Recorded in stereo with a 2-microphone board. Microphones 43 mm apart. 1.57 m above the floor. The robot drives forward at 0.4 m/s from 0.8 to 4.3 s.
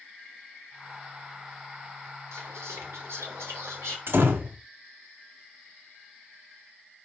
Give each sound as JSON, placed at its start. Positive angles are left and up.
{"t": 2.3, "sound": "whispering", "side_deg": -85, "distance_m": 3.0}
{"t": 4.1, "sound": "a door slam", "side_deg": -65, "distance_m": 1.0}